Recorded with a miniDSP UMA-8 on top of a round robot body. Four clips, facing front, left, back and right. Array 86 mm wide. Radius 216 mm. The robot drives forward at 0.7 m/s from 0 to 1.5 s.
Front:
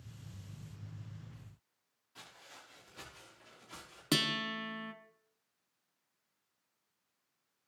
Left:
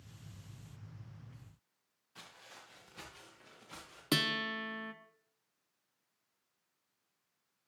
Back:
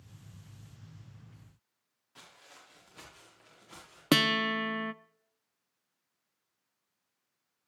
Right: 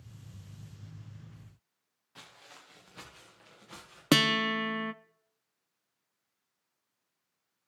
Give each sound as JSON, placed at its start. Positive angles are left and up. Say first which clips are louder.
{"t": 2.1, "sound": "footsteps", "louder": "right 2 dB, even", "azimuth_deg": -105, "distance_m": 4.5}
{"t": 4.1, "sound": "a guitar", "louder": "right 9 dB, back 8 dB", "azimuth_deg": -130, "distance_m": 0.5}